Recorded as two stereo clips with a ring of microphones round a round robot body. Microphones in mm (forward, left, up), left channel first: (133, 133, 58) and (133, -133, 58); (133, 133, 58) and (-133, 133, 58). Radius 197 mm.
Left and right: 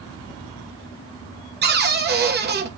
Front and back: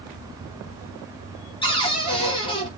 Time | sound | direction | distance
1.6 | a cupboard door | 65° right | 1.0 m